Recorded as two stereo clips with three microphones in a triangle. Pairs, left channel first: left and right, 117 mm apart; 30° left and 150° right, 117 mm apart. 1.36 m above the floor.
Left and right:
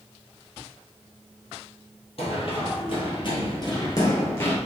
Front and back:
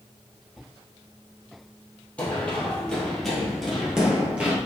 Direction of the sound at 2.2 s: 105° left.